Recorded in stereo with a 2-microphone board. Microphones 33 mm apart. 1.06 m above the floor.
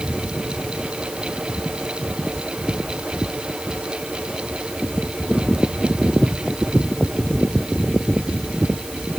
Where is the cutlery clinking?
No cutlery clinking in this recording.